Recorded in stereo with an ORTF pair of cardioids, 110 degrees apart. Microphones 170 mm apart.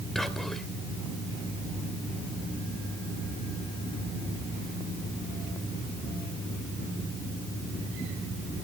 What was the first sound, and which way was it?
Whispering, straight ahead.